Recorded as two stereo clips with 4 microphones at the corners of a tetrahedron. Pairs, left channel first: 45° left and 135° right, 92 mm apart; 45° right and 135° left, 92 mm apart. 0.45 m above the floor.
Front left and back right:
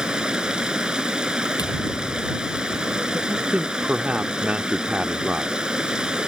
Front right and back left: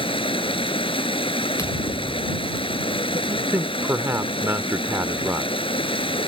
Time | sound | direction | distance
0.0 | running water | 55° right | ?
1.6 | a thud | 5° left | ?
3.3 | a man speaking | 160° left | ?